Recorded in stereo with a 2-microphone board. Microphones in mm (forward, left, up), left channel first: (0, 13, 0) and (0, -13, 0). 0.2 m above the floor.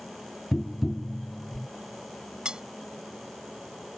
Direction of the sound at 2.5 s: 40° right (ahead or behind).